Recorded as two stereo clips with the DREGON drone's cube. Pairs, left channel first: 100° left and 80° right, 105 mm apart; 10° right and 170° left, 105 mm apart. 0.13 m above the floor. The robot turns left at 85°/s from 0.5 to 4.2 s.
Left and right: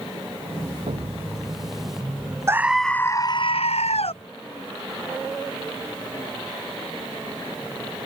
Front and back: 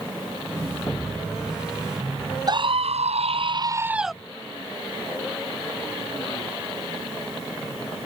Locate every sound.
0.9 s an explosion: 80° right; by 1.7 s 145° right
2.5 s a scream: 140° right; by 4.2 s 75° left